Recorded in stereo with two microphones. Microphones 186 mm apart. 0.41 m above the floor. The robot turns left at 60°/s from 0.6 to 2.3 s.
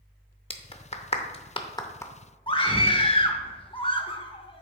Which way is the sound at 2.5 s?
25° left (ahead or behind).